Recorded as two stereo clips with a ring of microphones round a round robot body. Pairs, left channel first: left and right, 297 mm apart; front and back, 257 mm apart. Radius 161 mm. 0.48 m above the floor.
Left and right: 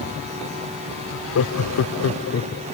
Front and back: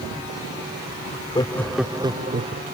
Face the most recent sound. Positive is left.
turn(degrees=145)